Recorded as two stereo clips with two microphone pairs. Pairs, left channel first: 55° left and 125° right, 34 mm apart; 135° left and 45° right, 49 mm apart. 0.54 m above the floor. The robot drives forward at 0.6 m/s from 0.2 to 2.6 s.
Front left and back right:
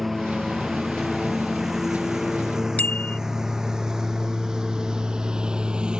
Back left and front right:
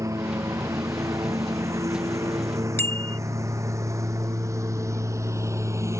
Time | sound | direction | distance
0.0 | a lawn mower | 40° right | ?
2.8 | a bicycle bell | 100° left | ?